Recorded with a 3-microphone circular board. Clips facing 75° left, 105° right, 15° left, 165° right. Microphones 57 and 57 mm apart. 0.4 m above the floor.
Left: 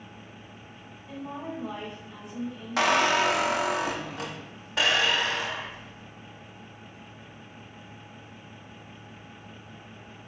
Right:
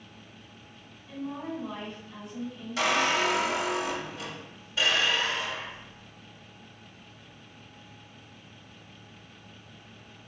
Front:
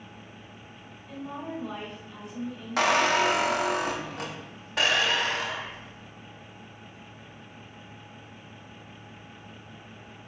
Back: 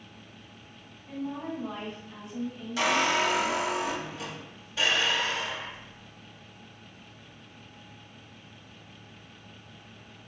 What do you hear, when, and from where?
1.1 s a woman speaking: 140° left, 1.9 m
2.8 s a squeak: 45° left, 0.6 m